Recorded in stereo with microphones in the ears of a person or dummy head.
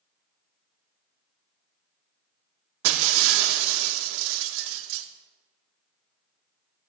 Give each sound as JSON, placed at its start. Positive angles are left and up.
{"t": 2.8, "sound": "breaking glass", "side_deg": -75, "distance_m": 2.0}